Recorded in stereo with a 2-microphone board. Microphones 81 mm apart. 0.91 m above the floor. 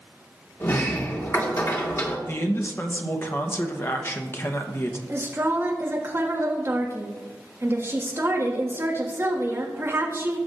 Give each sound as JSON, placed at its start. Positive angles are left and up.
{"t": 0.6, "sound": "a sliding door", "side_deg": 40, "distance_m": 1.4}
{"t": 2.3, "sound": "a man speaking", "side_deg": 30, "distance_m": 0.8}
{"t": 5.1, "sound": "a woman speaking", "side_deg": -30, "distance_m": 1.6}